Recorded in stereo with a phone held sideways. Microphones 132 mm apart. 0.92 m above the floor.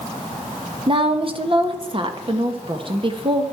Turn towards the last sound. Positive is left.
turn(degrees=-40)  # may be behind; listen again after turning